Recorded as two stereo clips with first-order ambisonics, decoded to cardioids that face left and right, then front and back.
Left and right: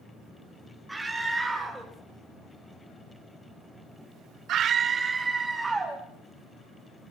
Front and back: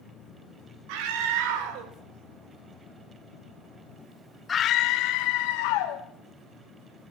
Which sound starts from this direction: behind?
A scream, at 0.9 s.